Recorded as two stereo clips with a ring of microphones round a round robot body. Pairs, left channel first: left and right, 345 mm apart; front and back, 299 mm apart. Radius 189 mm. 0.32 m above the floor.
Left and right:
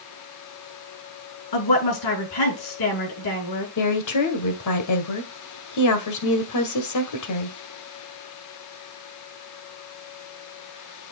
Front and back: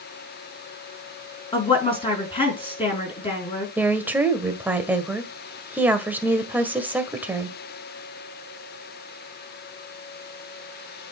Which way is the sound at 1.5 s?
75° left.